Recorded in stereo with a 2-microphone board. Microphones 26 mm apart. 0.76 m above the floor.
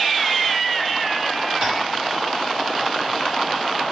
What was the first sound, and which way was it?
Tapping, 75° right (ahead or behind).